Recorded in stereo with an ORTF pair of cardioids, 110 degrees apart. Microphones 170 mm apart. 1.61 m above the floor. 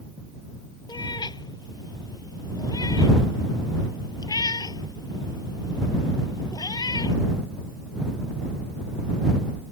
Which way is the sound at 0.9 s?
25° left.